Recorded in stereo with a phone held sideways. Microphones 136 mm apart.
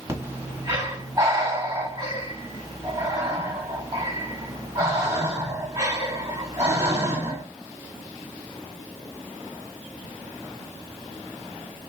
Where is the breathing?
25° right (ahead or behind), 1.4 m.